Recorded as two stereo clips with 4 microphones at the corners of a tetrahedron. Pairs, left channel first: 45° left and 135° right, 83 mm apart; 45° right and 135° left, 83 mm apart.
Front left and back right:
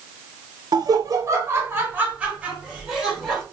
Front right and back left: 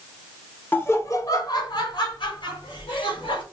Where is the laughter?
110° right, 0.8 m; by 3.4 s 50° right, 1.9 m.